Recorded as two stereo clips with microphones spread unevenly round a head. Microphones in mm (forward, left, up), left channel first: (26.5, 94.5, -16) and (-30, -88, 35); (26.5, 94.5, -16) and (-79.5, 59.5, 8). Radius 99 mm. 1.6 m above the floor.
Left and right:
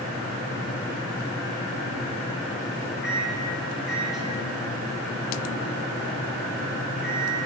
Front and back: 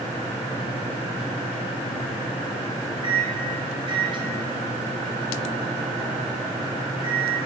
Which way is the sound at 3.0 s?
175° left.